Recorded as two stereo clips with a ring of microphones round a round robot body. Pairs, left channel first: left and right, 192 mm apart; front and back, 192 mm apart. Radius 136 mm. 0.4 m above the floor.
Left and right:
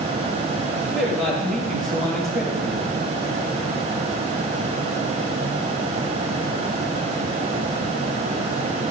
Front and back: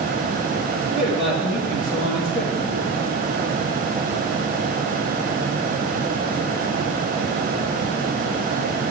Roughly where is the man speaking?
Ahead.